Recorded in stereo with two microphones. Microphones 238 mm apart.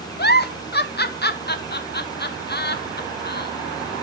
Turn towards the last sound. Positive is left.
turn(degrees=45)  # may be behind; listen again after turning